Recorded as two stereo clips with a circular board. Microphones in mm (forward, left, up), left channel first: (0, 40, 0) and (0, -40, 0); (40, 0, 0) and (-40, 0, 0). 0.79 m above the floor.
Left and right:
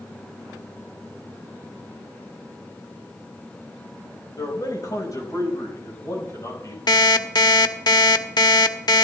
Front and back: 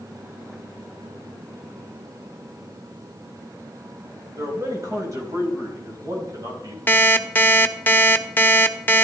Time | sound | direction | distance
4.4 | a man speaking | 135° left | 3 m
6.9 | an alarm clock | 65° left | 0.8 m